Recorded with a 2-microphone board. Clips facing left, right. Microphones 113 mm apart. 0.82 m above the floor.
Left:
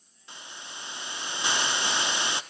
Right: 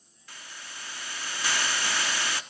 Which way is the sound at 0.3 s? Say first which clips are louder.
Left 2 dB; 20° left (ahead or behind).